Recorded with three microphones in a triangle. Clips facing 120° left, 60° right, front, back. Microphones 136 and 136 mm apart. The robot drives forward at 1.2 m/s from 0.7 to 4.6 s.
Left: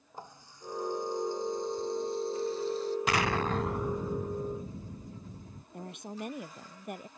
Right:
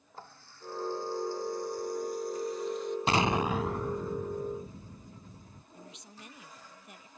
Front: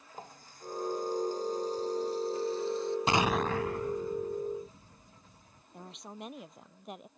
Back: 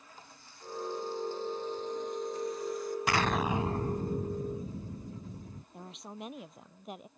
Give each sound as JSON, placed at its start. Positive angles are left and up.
{"t": 0.1, "sound": "a running tap", "azimuth_deg": 45}
{"t": 3.1, "sound": "an explosion", "azimuth_deg": -35}
{"t": 5.7, "sound": "a woman speaking", "azimuth_deg": 90}